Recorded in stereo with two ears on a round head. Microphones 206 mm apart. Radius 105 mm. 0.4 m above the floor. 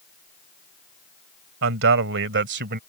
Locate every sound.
1.6 s a man speaking: 60° right (ahead or behind); by 2.8 s 45° right (ahead or behind)